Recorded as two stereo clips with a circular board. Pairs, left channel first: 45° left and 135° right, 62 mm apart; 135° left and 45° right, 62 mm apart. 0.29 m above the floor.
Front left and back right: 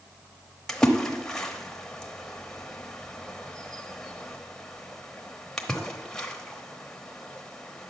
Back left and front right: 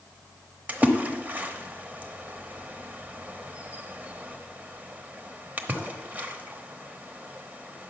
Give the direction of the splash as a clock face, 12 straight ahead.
1 o'clock.